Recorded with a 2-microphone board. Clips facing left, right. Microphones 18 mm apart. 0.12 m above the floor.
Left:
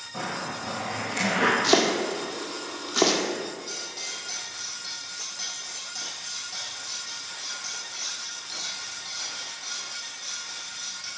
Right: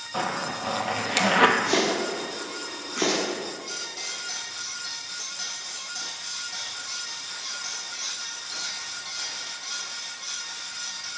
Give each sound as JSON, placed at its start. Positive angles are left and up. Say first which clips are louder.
{"t": 0.1, "sound": "a zipper", "louder": "right 4 dB", "side_deg": -65, "distance_m": 1.2}
{"t": 1.6, "sound": "chopping", "louder": "left 2 dB", "side_deg": 70, "distance_m": 1.8}
{"t": 3.7, "sound": "cutlery clinking", "louder": "right 1 dB", "side_deg": 0, "distance_m": 3.0}